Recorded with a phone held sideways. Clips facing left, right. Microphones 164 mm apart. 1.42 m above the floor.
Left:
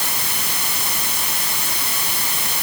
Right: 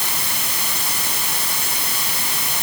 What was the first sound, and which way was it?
Only background noise.